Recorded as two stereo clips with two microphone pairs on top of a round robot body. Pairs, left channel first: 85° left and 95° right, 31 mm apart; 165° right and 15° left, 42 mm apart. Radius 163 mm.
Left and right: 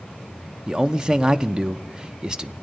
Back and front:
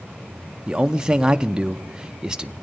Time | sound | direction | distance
0.7 | a man speaking | 40° right | 0.6 m